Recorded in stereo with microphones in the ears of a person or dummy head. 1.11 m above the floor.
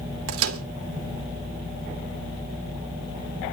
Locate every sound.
0.3 s a microwave: 80° right, 2 m